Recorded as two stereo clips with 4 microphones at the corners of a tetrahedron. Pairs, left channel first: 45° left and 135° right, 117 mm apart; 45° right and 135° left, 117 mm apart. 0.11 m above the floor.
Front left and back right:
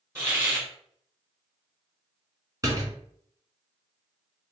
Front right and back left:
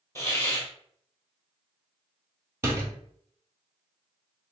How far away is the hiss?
About 1.5 m.